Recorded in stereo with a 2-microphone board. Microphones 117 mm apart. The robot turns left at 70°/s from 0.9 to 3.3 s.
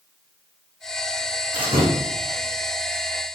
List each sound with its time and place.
1.5 s a door slam: 40° right (ahead or behind), 6 m; by 1.9 s 65° right (ahead or behind), 6 m